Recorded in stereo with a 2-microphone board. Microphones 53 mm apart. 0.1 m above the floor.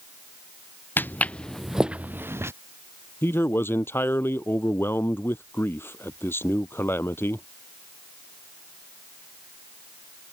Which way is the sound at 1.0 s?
40° left (ahead or behind).